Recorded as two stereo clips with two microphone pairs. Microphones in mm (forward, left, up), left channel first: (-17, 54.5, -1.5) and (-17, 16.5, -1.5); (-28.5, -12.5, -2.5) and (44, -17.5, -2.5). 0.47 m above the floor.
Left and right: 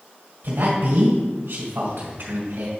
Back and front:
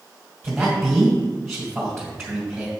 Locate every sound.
0.4 s a man speaking: 95° right, 2.5 m